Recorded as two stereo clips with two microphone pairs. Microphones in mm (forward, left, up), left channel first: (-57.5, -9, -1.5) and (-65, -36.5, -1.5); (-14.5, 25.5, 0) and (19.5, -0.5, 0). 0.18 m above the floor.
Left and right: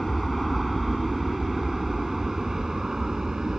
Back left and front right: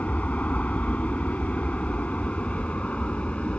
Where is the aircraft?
155° left; by 3.6 s 170° right.